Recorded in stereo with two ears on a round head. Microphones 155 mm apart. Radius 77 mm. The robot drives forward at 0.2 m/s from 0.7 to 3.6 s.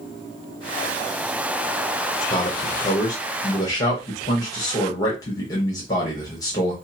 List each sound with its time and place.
2.3 s a man speaking: 25° left (ahead or behind), 0.7 m; by 6.7 s 20° left (ahead or behind), 0.9 m